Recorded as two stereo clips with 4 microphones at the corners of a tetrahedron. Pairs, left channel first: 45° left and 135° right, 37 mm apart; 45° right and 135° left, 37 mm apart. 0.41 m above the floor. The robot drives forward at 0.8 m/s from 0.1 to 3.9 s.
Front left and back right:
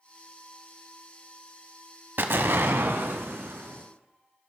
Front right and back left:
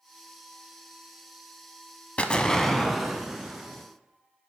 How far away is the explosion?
About 0.7 m.